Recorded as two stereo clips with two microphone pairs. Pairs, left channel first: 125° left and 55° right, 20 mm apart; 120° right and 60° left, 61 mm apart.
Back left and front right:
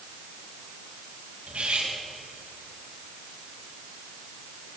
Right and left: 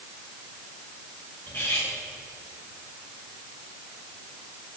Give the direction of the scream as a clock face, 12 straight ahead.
No scream in this recording.